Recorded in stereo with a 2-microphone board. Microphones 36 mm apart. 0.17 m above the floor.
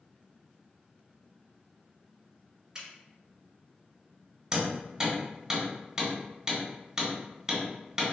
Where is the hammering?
15° right (ahead or behind), 1.5 m.